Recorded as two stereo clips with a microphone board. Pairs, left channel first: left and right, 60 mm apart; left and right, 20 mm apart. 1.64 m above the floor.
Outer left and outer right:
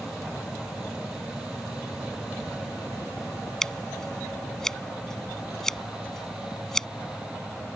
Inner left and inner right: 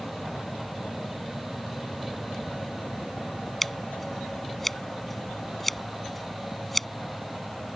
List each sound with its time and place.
3.6 s scissors: 10° left (ahead or behind)